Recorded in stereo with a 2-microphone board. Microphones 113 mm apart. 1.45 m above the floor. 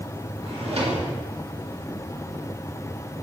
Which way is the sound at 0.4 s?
65° right (ahead or behind).